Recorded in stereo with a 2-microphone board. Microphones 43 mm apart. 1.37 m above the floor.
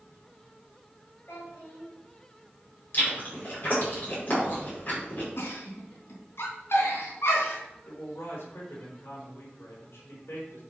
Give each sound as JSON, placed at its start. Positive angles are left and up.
{"t": 1.3, "sound": "a child speaking", "side_deg": 65, "distance_m": 4.0}
{"t": 2.9, "sound": "chewing", "side_deg": 40, "distance_m": 5.5}
{"t": 5.4, "sound": "a giggle", "side_deg": 70, "distance_m": 3.5}
{"t": 7.8, "sound": "a man speaking", "side_deg": 65, "distance_m": 4.5}